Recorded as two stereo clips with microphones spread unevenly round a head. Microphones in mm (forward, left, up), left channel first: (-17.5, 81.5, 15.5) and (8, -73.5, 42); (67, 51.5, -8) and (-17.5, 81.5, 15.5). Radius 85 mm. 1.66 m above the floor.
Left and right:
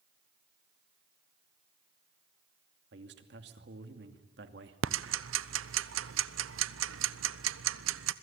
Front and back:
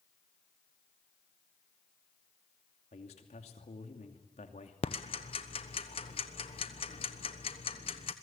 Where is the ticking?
80° right, 0.9 m.